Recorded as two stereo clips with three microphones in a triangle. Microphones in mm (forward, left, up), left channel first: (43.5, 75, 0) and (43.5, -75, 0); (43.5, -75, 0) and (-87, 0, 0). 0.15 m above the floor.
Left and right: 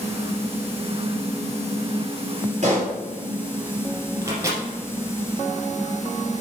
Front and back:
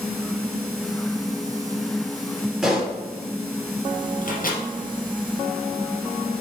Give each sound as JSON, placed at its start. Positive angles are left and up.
{"t": 2.6, "sound": "a pop", "azimuth_deg": -120, "distance_m": 3.5}
{"t": 4.2, "sound": "a microwave", "azimuth_deg": -20, "distance_m": 2.5}